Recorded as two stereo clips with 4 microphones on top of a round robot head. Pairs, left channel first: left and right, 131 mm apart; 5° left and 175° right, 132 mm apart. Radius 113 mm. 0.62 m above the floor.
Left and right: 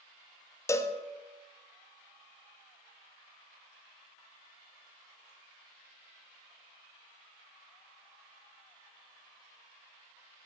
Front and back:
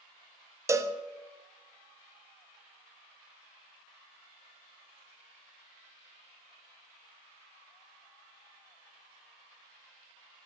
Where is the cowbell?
135° left, 0.6 m.